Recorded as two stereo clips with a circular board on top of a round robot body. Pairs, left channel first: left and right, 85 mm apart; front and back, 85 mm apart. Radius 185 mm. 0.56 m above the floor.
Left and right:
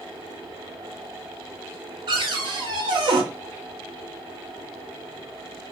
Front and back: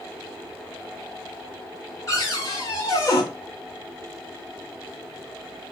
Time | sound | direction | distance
2.1 | a cupboard door | 55° right | 0.7 m